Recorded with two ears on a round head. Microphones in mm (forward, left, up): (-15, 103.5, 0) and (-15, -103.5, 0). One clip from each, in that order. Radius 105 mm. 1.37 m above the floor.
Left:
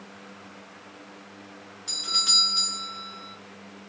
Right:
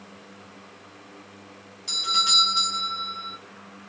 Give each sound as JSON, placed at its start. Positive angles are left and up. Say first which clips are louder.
{"t": 1.9, "sound": "a doorbell", "louder": "right 2 dB", "side_deg": 0, "distance_m": 1.1}